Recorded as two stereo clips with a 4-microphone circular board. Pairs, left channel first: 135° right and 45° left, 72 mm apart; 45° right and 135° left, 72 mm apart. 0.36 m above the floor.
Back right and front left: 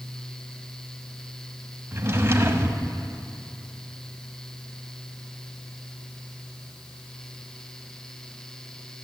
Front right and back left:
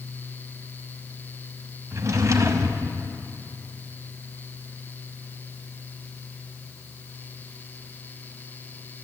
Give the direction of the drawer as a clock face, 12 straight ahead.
9 o'clock.